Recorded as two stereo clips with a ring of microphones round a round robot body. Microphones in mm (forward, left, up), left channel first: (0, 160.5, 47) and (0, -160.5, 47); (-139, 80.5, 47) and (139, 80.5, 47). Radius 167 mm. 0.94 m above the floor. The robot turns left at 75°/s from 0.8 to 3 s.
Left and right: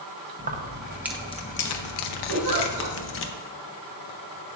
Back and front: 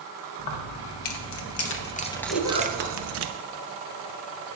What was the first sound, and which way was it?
Keys jangling, 155° right.